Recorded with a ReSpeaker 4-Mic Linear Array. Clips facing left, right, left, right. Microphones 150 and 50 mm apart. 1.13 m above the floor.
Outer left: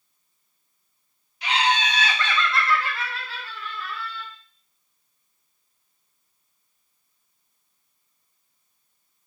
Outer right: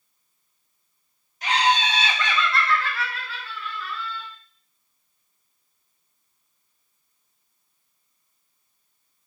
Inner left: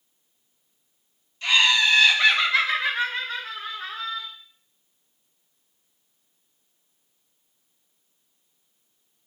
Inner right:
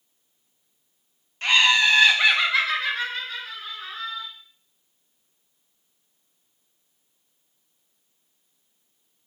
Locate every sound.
1.4 s laughter: 45° right (ahead or behind), 0.9 m; by 4.3 s 55° left (ahead or behind), 1.1 m